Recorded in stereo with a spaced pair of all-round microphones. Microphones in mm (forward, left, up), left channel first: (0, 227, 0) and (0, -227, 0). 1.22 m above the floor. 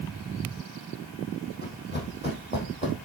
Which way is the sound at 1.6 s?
20° left (ahead or behind).